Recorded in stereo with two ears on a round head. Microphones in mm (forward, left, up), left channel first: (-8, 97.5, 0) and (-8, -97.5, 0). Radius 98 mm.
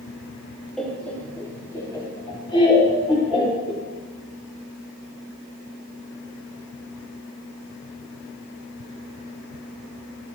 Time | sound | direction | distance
0.8 | laughter | centre (ahead or behind) | 2.5 m